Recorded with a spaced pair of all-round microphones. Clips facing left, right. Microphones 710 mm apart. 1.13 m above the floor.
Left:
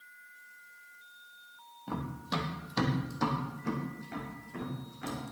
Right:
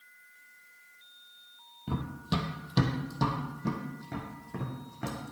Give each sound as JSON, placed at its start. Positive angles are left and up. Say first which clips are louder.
{"t": 1.9, "sound": "running footsteps", "louder": "right 3 dB", "side_deg": -45, "distance_m": 1.7}